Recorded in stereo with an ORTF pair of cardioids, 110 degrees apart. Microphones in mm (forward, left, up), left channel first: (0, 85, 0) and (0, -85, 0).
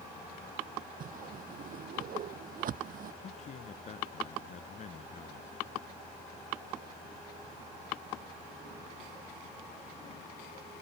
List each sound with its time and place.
1.0 s a whoosh: 55° right
3.2 s a man speaking: 45° left